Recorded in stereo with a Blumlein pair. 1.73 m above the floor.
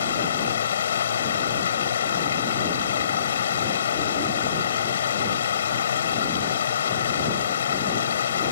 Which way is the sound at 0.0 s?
65° left.